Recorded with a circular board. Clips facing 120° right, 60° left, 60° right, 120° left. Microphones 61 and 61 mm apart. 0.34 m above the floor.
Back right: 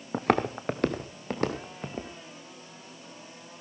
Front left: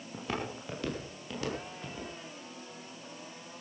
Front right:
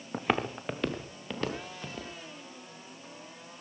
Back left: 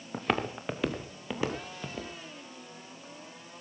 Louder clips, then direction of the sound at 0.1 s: Back right 12 dB, front right 1 dB; 140° right.